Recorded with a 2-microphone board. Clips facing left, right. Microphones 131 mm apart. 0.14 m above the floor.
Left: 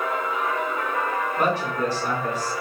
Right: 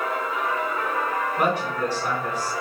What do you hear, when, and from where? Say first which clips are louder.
1.4 s a woman speaking: even; centre (ahead or behind), 1.3 m